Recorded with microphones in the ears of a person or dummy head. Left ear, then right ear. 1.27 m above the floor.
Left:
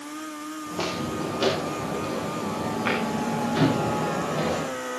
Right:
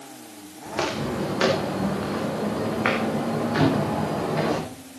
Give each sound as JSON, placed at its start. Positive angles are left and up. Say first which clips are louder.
{"t": 0.7, "sound": "footsteps", "louder": "right 3 dB", "side_deg": -70, "distance_m": 5.5}
{"t": 3.6, "sound": "a cupboard door", "louder": "even", "side_deg": -15, "distance_m": 4.5}